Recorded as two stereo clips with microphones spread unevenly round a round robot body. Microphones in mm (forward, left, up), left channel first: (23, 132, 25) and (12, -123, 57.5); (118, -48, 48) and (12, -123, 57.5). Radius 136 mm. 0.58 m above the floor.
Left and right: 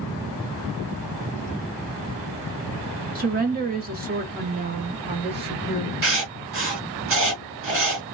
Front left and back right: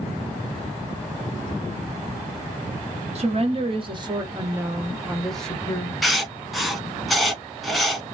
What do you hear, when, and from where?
3.1 s a woman speaking: 145° right, 1.4 m; by 5.9 s 15° right, 1.2 m
6.0 s writing: 55° right, 1.1 m